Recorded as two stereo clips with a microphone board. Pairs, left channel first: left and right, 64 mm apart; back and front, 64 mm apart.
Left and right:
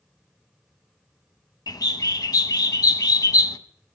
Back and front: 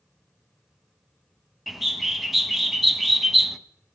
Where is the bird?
90° left, 0.6 m.